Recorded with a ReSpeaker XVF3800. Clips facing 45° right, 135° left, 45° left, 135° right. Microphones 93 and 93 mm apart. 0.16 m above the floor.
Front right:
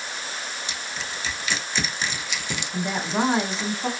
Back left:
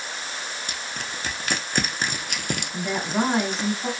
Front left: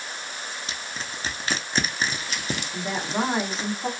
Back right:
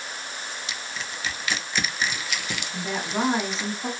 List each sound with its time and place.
0.7 s crushing: 95° left, 0.5 m
2.7 s a woman speaking: 30° right, 1.1 m